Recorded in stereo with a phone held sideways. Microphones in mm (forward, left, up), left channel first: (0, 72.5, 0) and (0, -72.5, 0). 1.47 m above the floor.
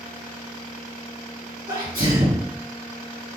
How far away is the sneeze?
About 1.5 m.